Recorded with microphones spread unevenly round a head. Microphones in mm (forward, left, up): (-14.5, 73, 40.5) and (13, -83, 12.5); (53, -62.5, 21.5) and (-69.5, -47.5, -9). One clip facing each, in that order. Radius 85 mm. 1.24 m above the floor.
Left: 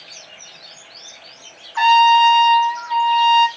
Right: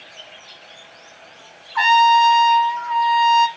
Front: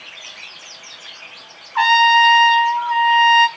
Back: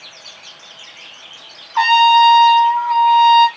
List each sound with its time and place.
1.8 s a trumpet: 105° left, 1.2 m